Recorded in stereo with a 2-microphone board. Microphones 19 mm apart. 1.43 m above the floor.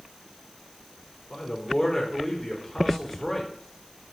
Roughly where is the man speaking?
Centre.